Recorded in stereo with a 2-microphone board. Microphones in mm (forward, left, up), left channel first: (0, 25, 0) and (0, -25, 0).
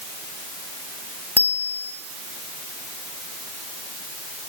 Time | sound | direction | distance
1.4 | a bicycle bell | 45° left (ahead or behind) | 4 m